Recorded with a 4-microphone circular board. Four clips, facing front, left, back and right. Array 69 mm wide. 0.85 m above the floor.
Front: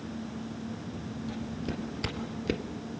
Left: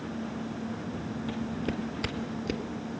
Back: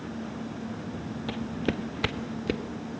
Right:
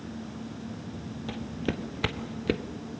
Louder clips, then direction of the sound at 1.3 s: Right 1 dB, back 7 dB; 175° right.